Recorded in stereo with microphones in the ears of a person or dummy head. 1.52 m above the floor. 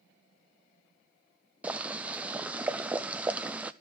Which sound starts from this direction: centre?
Boiling, at 1.6 s.